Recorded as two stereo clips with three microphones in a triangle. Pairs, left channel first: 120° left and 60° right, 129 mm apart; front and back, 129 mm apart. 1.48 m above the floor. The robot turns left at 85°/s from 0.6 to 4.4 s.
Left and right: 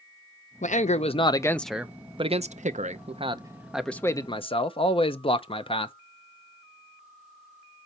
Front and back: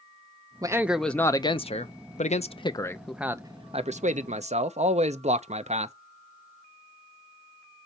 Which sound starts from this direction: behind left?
A man speaking, at 0.6 s.